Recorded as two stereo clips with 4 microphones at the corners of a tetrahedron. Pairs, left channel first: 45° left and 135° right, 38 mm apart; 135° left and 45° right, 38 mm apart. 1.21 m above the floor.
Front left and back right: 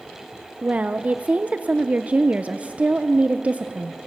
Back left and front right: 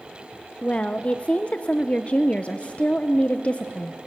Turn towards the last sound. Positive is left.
turn(degrees=-175)